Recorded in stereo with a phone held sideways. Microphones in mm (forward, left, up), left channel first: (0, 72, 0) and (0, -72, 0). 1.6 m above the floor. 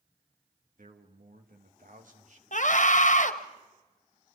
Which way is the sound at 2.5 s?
60° left (ahead or behind).